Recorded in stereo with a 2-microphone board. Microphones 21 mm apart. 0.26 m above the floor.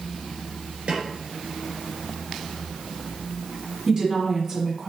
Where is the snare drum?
75° right (ahead or behind), 2.5 m.